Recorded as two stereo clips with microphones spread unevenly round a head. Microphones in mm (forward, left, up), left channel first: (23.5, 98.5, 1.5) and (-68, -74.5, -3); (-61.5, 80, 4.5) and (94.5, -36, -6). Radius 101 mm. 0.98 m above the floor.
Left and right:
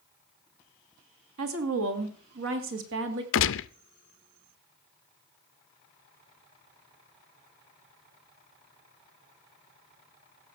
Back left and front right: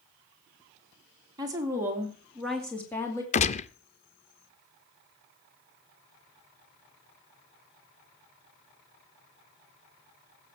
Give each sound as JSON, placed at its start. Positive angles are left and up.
{"t": 1.4, "sound": "a woman speaking", "azimuth_deg": -105, "distance_m": 2.5}
{"t": 3.3, "sound": "a gunshot", "azimuth_deg": 85, "distance_m": 0.6}